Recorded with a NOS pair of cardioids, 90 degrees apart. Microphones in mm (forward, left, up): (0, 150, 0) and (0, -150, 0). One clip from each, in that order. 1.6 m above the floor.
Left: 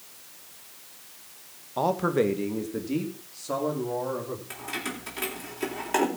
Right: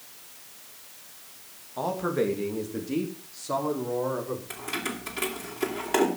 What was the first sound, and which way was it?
A man speaking, 45° left.